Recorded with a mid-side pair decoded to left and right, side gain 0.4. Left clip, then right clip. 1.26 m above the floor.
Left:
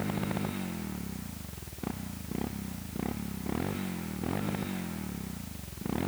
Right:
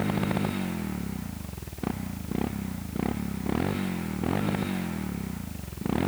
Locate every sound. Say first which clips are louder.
0.0 s a motorcycle: right 5 dB; 40° right